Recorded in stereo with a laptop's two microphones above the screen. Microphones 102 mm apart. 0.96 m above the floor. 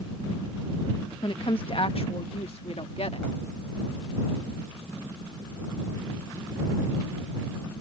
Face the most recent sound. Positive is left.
turn(degrees=75)  # may be behind; listen again after turning